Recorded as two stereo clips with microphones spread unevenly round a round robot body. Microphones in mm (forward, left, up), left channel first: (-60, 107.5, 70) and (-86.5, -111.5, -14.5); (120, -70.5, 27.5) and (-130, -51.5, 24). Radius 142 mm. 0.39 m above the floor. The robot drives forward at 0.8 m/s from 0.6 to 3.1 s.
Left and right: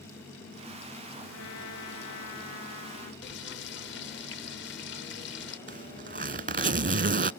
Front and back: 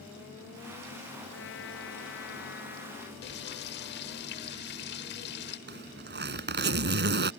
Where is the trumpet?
45° left; by 3.1 s 55° left.